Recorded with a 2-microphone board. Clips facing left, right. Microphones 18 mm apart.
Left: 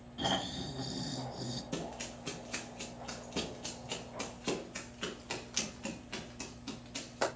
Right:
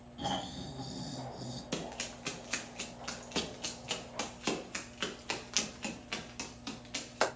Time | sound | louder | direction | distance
0.2 | snoring | left 3 dB | 25° left (ahead or behind) | 2.0 m
1.7 | running footsteps | right 1 dB | 50° right (ahead or behind) | 3 m